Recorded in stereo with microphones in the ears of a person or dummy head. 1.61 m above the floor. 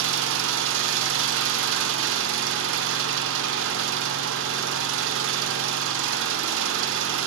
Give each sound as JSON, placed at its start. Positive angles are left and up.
{"t": 0.0, "sound": "an engine running", "side_deg": -70, "distance_m": 0.8}